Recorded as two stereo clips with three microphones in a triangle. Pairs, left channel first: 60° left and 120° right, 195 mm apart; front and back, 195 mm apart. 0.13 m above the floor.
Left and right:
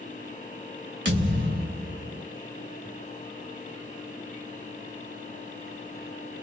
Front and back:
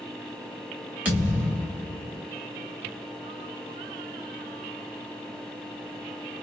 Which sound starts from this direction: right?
A thud, at 1.1 s.